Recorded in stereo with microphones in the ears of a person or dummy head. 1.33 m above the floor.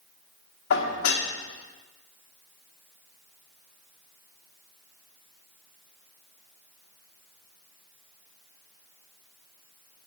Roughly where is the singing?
No singing in this recording.